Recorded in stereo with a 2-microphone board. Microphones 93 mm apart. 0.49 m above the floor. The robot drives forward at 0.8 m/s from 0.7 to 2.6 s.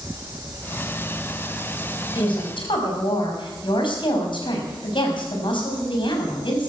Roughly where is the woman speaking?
Left.